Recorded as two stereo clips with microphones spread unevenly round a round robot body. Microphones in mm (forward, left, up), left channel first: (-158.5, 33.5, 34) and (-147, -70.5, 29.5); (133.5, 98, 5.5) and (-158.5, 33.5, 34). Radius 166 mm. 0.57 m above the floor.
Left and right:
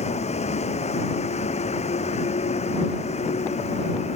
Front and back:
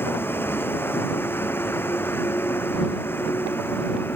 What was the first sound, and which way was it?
A vehicle, 95° left.